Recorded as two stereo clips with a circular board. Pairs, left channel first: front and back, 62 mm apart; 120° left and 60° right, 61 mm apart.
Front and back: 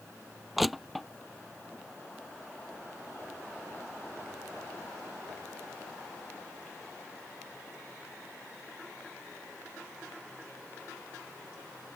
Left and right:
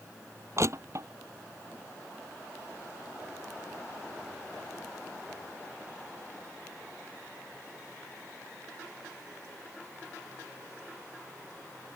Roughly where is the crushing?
Right.